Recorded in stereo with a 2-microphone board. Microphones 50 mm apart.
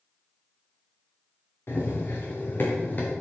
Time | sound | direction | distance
1.7 | running footsteps | 55° left (ahead or behind) | 4.5 m